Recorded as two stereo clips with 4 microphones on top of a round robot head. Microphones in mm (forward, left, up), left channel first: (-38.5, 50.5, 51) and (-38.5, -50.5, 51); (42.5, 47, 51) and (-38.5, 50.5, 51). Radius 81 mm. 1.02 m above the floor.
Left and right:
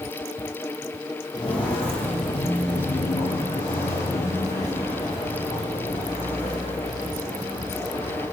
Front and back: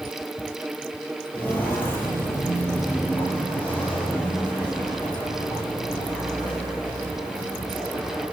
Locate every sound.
1.3 s footsteps: 45° left, 1.2 m; by 8.2 s 65° left, 6.5 m